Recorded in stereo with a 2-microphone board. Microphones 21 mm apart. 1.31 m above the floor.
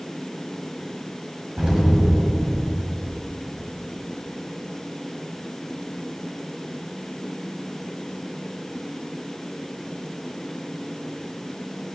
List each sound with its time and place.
1.6 s an explosion: 45° right (ahead or behind), 5 m